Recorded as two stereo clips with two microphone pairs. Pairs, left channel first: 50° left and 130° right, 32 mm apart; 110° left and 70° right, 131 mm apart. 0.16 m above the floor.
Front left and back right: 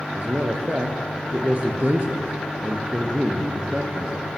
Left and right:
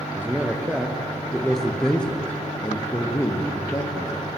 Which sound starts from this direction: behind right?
A man speaking, at 0.1 s.